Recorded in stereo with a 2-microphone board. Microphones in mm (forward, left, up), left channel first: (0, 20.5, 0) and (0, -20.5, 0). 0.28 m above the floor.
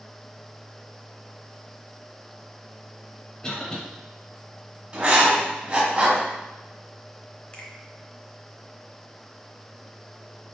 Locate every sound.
3.4 s a cough: 15° left (ahead or behind), 1.0 m
4.9 s writing: 30° right (ahead or behind), 1.2 m
7.5 s a finger snap: 30° left (ahead or behind), 0.8 m